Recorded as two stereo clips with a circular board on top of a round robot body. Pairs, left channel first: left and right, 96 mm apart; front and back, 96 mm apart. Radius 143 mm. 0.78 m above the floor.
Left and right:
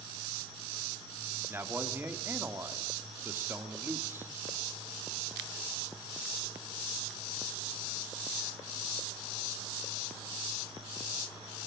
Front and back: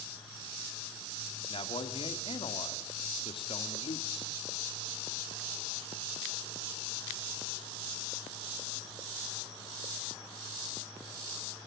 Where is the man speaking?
25° right, 2 m.